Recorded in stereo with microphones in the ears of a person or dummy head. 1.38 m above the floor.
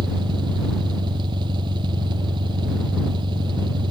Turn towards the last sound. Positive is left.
turn(degrees=-25)  # may be behind; listen again after turning